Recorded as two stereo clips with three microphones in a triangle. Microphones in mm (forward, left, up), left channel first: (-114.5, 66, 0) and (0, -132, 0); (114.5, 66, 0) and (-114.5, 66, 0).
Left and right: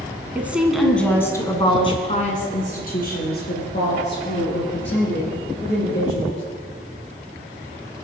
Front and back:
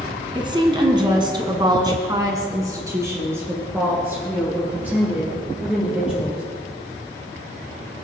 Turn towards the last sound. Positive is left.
turn(degrees=95)